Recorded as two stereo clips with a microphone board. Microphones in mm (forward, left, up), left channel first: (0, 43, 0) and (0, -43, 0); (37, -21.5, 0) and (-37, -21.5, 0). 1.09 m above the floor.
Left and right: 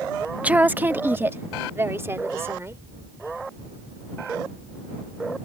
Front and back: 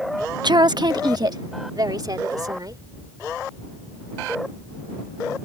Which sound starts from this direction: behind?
A woman speaking, at 0.4 s.